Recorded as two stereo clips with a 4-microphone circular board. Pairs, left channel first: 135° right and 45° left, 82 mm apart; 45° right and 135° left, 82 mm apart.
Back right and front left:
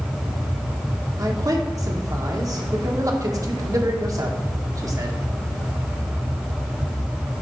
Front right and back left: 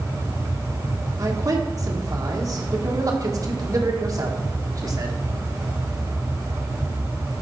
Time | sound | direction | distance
1.2 | a man speaking | 90° left | 1.5 m